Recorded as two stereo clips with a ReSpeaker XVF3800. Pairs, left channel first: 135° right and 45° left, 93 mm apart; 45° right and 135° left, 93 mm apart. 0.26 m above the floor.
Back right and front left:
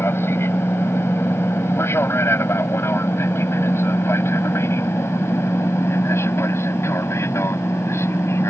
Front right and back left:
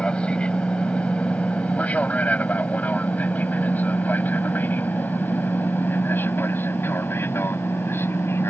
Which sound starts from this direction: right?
An aircraft, at 0.0 s.